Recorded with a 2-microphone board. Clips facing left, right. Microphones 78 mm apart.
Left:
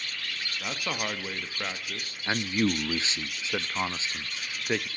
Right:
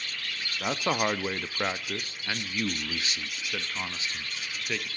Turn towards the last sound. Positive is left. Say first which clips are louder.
# left 6 dB
turn(degrees=25)  # may be behind; listen again after turning